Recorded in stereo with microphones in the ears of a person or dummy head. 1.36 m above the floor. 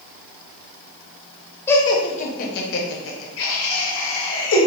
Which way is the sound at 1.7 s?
15° left (ahead or behind).